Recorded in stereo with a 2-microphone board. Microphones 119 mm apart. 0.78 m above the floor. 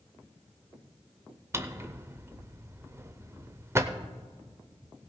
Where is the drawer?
20° right (ahead or behind), 0.6 m.